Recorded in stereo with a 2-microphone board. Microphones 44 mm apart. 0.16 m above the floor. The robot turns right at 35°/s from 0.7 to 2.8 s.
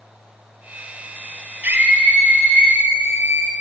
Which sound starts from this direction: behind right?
A scream, at 1.6 s.